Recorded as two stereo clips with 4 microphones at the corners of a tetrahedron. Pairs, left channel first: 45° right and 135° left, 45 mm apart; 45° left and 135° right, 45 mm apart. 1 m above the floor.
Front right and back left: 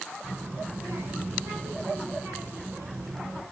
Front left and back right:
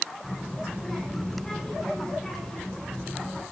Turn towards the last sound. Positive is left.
turn(degrees=130)